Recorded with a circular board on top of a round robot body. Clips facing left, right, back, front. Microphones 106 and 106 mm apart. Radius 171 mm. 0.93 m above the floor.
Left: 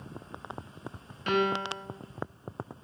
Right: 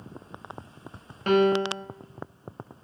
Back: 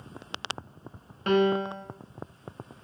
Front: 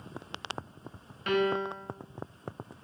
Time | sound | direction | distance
1.3 | a piano | 130° right | 1.5 m